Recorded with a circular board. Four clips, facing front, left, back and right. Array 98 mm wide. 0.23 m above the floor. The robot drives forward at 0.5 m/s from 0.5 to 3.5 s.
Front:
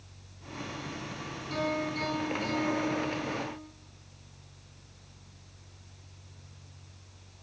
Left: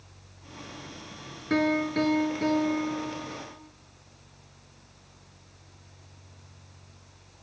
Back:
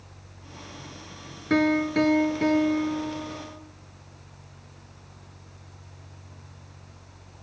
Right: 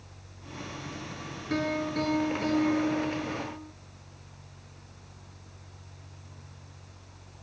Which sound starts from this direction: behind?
A piano, at 1.5 s.